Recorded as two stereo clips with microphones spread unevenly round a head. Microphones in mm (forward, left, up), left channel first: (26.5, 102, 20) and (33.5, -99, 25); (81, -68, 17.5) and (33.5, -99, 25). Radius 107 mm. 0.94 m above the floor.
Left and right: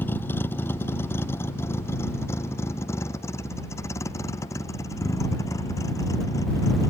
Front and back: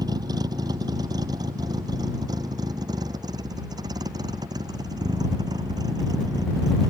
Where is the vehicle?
175° left; by 6.9 s 170° left.